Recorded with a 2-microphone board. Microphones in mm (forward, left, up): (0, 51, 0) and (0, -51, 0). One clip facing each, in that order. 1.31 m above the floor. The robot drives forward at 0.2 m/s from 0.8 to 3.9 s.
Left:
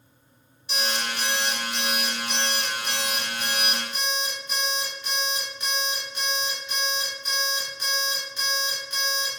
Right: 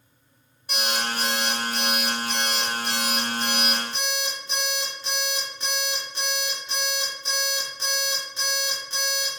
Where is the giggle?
No giggle in this recording.